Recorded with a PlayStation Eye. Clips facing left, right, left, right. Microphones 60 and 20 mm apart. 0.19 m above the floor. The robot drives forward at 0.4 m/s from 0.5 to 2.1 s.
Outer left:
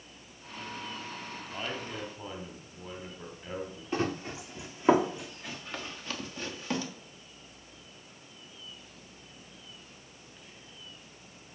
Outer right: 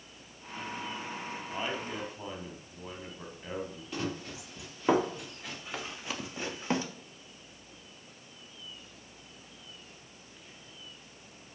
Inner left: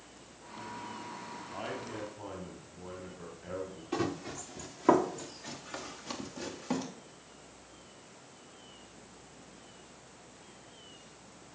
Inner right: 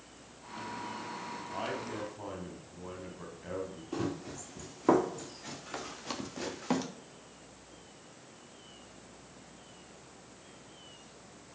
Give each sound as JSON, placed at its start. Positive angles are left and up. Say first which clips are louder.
{"t": 1.5, "sound": "a man speaking", "louder": "outer right 2 dB, inner right 2 dB", "side_deg": -10, "distance_m": 1.4}
{"t": 3.9, "sound": "running footsteps", "louder": "outer left 5 dB, inner left 3 dB", "side_deg": 30, "distance_m": 1.6}